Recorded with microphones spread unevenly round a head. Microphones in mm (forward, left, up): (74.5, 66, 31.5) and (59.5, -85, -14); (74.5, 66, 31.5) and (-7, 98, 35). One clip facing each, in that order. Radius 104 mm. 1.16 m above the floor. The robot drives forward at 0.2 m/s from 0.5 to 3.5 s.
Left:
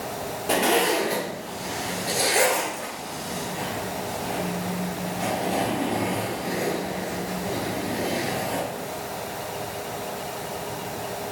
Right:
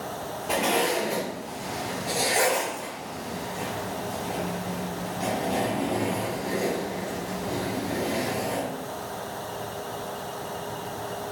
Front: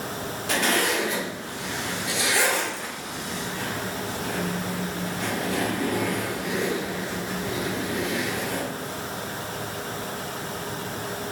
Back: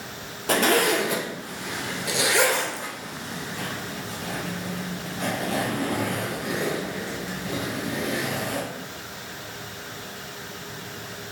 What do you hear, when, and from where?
0.5 s a zipper: 120° left, 0.5 m; by 8.6 s 155° left, 1.0 m